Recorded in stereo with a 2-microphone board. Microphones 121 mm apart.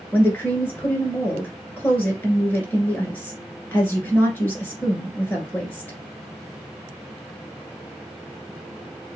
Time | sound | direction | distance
0.1 | a woman speaking | 15° left (ahead or behind) | 1.5 m